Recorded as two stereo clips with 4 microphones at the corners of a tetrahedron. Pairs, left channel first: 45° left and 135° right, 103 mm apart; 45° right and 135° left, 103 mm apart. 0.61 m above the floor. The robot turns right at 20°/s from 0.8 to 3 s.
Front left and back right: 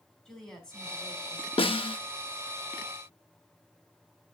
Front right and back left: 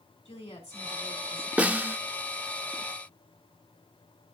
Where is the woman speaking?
35° right, 3.5 m; by 1.5 s 25° right, 3.5 m.